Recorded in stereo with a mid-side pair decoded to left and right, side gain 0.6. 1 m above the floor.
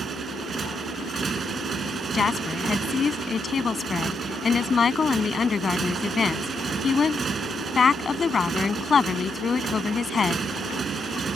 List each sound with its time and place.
0.0 s a motorcycle: 30° right
2.1 s a woman speaking: 30° left